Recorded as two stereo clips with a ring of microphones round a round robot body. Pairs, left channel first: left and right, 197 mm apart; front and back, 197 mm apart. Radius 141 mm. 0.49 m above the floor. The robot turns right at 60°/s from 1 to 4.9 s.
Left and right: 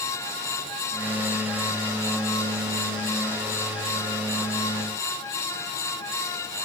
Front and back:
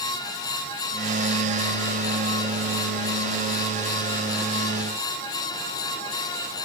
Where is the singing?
I don't hear singing.